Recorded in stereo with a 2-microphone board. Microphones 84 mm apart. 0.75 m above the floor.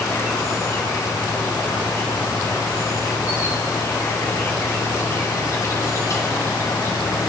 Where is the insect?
35° left (ahead or behind), 2.5 m.